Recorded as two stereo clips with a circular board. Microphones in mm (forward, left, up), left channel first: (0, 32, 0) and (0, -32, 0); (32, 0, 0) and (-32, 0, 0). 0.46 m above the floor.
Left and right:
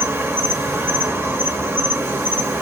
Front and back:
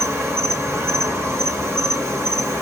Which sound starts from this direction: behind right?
An insect, at 0.0 s.